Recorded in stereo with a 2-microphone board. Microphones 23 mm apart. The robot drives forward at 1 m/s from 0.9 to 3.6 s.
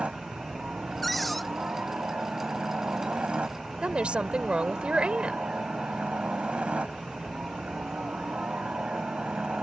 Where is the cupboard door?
Centre (ahead or behind).